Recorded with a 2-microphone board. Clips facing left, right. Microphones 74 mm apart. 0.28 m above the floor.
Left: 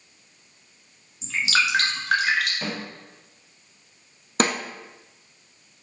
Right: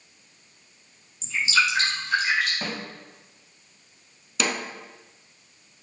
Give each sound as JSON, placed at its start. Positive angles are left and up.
{"t": 1.2, "sound": "dripping", "side_deg": 75, "distance_m": 1.2}
{"t": 2.6, "sound": "a snare drum", "side_deg": -25, "distance_m": 1.8}
{"t": 4.4, "sound": "a snare drum", "side_deg": 45, "distance_m": 0.7}